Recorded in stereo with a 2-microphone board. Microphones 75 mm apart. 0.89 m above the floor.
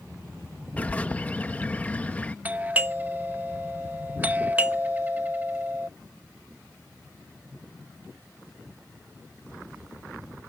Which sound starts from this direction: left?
A bird, at 0.8 s.